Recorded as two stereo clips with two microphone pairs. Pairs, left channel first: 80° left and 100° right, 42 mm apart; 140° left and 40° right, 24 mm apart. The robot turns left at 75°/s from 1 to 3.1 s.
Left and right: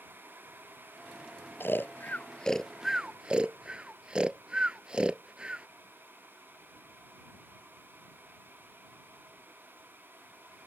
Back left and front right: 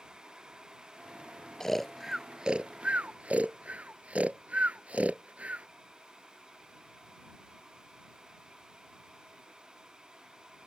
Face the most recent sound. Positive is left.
turn(degrees=-35)